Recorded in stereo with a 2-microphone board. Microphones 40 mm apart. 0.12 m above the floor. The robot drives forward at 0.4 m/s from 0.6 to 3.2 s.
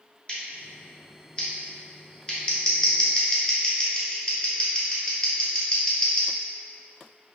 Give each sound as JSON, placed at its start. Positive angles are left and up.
{"t": 0.3, "sound": "scissors", "side_deg": 25, "distance_m": 1.6}